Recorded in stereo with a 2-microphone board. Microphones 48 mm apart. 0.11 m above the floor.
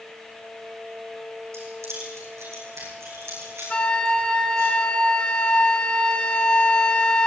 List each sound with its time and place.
1.5 s keys jangling: 70° right (ahead or behind), 4.5 m; by 4.7 s 80° right, 7.5 m
3.7 s a flute: 20° left (ahead or behind), 1.0 m